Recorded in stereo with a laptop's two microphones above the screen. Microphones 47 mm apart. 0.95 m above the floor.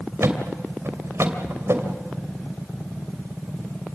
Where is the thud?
65° right (ahead or behind), 2 m.